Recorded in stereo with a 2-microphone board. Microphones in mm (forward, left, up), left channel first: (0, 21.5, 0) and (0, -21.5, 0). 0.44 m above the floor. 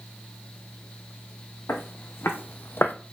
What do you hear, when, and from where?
1.7 s footsteps: 75° left (ahead or behind), 1.7 m; by 3.0 s 50° left (ahead or behind), 0.7 m